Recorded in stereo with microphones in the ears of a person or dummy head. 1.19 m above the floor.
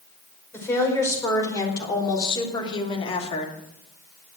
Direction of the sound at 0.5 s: 15° left (ahead or behind).